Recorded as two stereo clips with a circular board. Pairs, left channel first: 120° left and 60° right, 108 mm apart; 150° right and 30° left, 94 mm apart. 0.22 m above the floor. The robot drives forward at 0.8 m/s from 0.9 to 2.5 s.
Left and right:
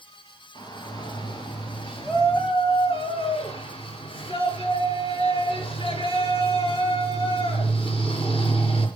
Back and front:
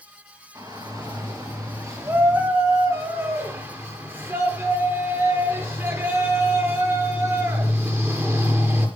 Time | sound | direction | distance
0.6 | a shout | 75° left | 5.5 m